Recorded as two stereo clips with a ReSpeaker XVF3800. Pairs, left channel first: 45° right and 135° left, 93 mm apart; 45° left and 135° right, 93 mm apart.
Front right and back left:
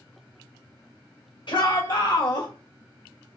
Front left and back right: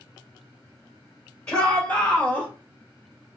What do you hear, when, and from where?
1.5 s a shout: 30° right, 1.9 m; by 2.5 s 25° right, 1.3 m